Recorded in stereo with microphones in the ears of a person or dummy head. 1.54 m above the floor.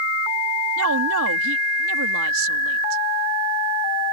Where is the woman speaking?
75° right (ahead or behind).